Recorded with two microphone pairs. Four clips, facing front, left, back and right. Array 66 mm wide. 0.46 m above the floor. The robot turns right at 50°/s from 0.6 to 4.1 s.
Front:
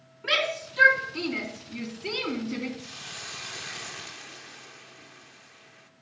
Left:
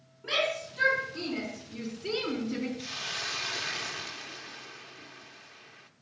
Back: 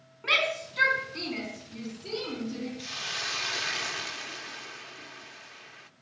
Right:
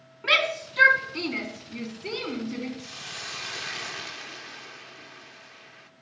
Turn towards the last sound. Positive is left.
turn(degrees=-145)